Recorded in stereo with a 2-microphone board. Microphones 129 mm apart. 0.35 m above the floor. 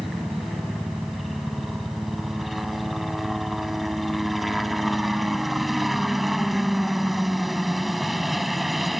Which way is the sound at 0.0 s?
Centre (ahead or behind).